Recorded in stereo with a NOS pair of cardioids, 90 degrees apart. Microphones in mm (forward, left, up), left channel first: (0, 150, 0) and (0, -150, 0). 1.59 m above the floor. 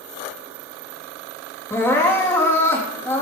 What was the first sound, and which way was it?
Crying, 10° left.